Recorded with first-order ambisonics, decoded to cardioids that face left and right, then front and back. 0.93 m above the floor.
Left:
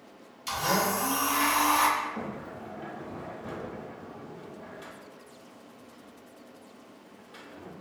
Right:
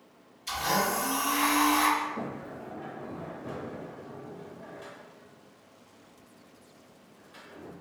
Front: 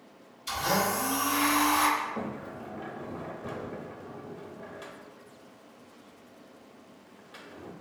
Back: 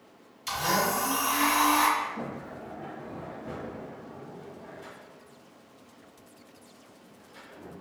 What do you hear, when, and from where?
0.5 s a blender: 150° left, 2.0 m
2.0 s a sliding door: 15° left, 0.6 m